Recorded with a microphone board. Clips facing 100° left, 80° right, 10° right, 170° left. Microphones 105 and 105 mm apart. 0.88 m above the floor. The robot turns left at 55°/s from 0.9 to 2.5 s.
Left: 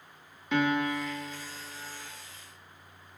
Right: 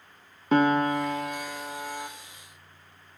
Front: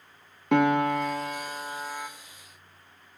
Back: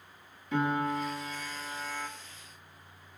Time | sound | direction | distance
0.5 | a piano | 30° right | 1.0 m